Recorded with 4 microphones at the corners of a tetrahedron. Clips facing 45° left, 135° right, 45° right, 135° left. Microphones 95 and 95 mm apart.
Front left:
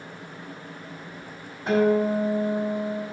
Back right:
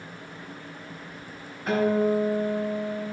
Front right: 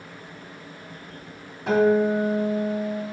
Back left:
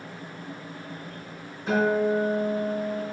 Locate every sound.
1.7 s a guitar: 25° right, 3 m